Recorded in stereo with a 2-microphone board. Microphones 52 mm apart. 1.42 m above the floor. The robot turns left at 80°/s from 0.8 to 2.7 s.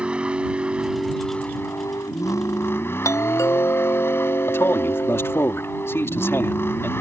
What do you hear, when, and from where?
0.0 s a vehicle: 160° right; by 7.0 s 50° left
3.0 s a doorbell: 80° left
4.5 s a man speaking: 55° left (ahead or behind)